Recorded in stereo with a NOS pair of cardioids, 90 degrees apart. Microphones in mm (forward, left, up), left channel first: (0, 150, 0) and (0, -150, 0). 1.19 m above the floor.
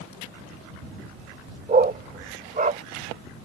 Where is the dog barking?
30° right.